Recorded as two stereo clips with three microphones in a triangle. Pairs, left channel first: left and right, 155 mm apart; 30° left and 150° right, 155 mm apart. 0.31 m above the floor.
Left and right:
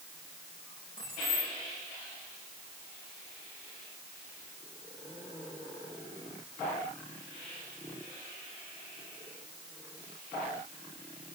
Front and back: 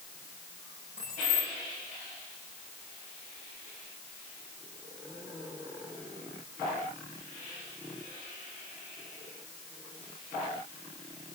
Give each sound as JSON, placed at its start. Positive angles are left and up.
{"t": 1.0, "sound": "keys jangling", "azimuth_deg": 60, "distance_m": 10.0}